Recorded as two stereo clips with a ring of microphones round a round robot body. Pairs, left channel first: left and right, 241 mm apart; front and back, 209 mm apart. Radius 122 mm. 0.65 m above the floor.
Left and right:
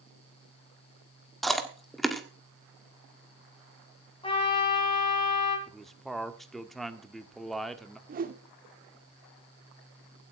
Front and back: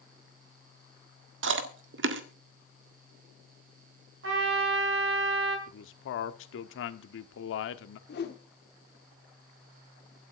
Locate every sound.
1.4 s chewing: straight behind, 1.6 m
4.2 s a trumpet: 160° left, 4.5 m
5.7 s a man speaking: straight ahead, 1.3 m
8.1 s a whoosh: 40° right, 1.6 m